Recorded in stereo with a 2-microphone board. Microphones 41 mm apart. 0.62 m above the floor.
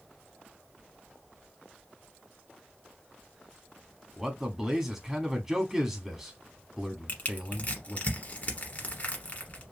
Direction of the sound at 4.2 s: 10° right (ahead or behind).